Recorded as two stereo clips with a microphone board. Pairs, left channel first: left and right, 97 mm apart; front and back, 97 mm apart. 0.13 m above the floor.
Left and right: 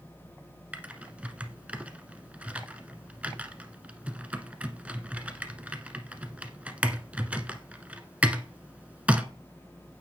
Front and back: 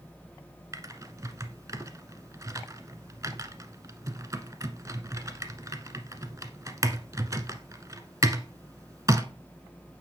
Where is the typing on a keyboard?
160° right, 1.2 m.